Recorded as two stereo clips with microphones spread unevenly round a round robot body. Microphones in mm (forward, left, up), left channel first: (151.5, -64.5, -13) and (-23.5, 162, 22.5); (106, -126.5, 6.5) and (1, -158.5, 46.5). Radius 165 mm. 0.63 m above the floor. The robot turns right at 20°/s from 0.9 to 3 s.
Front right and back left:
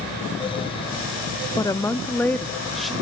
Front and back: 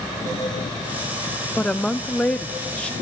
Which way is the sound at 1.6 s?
Straight ahead.